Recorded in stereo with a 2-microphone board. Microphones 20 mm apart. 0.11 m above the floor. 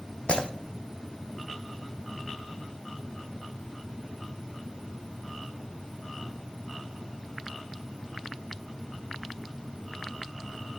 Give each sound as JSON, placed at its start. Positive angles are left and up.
{"t": 0.3, "sound": "breaking glass", "side_deg": 70, "distance_m": 1.1}